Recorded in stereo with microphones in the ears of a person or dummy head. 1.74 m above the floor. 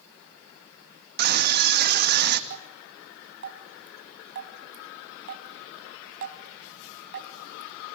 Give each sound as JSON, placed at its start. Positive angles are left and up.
{"t": 1.2, "sound": "a scream", "side_deg": -45, "distance_m": 2.5}
{"t": 2.5, "sound": "dripping", "side_deg": -60, "distance_m": 3.0}